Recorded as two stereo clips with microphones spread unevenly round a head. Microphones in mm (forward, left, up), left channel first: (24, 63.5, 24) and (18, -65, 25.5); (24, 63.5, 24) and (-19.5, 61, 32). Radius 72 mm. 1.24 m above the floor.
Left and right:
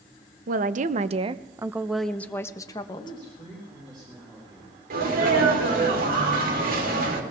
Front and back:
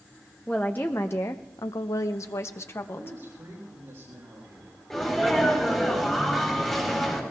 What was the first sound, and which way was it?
A woman speaking, 75° right.